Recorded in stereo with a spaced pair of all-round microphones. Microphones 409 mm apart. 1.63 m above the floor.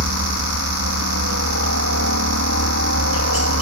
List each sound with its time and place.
0.0 s a helicopter: 35° right (ahead or behind)